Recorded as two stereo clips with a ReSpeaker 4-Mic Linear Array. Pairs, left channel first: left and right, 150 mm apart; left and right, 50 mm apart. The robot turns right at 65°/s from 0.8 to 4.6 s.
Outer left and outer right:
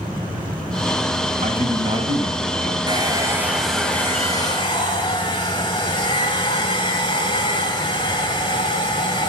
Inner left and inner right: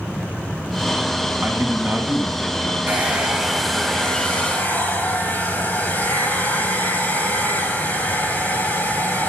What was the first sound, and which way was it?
A man speaking, 85° right.